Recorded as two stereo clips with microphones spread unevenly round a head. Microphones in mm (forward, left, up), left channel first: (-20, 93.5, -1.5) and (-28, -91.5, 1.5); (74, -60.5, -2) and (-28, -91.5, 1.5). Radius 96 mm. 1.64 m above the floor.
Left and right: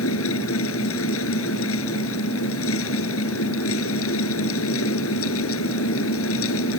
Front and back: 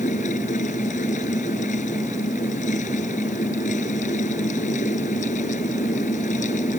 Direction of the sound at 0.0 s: 65° left.